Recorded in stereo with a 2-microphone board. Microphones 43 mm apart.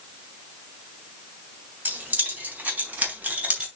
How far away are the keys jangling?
About 4 m.